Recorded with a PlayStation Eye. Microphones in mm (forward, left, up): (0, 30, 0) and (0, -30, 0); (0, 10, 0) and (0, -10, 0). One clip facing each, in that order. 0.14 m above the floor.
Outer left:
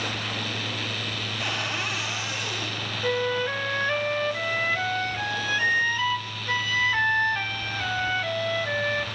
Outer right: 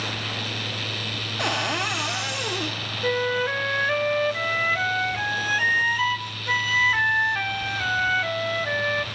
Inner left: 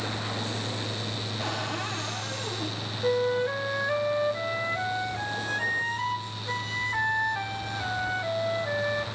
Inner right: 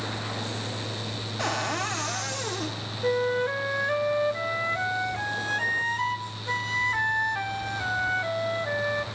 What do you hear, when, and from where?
1.4 s a cupboard door: 70° right (ahead or behind), 4 m
3.0 s a flute: 15° right (ahead or behind), 0.8 m